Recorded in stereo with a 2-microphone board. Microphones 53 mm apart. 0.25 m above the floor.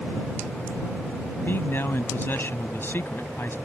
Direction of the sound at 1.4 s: 45° left (ahead or behind).